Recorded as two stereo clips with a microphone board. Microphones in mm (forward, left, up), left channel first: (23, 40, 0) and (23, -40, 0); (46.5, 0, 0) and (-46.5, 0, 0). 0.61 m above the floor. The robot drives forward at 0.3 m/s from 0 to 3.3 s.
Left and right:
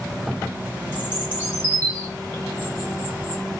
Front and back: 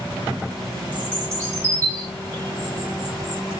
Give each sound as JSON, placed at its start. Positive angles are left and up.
{"t": 0.9, "sound": "a bird", "azimuth_deg": 125, "distance_m": 1.2}